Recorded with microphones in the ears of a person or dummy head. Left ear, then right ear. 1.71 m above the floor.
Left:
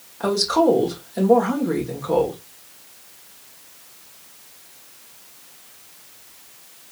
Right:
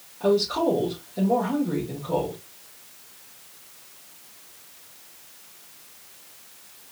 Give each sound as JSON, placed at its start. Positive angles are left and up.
{"t": 0.2, "sound": "a woman speaking", "side_deg": 70, "distance_m": 1.6}